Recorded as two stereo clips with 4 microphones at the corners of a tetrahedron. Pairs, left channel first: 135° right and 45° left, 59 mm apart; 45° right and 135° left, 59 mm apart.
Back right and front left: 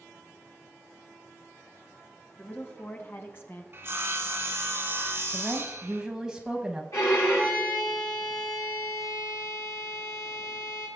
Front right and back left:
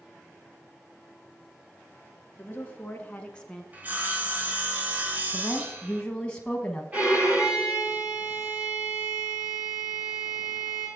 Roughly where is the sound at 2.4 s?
Right.